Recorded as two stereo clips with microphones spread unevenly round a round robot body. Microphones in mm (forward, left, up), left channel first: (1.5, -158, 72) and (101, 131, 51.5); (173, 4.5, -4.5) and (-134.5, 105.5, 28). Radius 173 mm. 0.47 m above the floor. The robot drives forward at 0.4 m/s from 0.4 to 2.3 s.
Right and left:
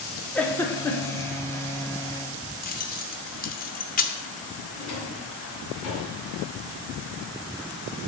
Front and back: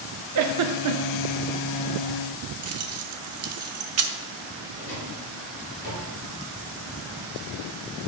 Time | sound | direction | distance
0.3 | a giggle | 165° left | 0.6 m
2.6 | keys jangling | 165° right | 0.6 m
4.7 | a drawer | 130° right | 2.5 m